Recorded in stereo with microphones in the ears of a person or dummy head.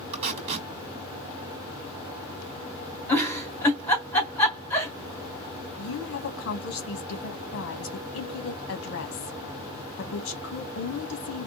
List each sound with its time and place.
0.1 s tape being pulled: 35° right (ahead or behind), 1.3 m
3.1 s a giggle: 5° left (ahead or behind), 1.7 m
5.8 s a woman speaking: 60° left (ahead or behind), 1.1 m